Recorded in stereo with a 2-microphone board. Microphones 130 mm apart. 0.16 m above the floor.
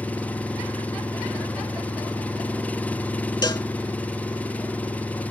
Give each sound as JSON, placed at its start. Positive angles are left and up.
{"t": 0.0, "sound": "an engine running", "side_deg": 10}
{"t": 3.4, "sound": "a cowbell", "side_deg": 30}